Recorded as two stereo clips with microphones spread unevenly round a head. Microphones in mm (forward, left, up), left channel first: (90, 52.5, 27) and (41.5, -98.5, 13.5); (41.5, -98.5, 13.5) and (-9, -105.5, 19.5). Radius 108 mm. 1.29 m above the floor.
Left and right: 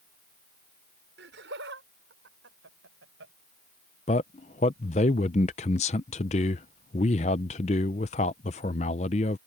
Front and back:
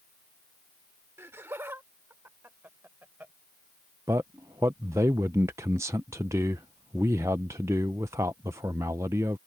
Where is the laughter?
135° right; by 3.3 s 125° right.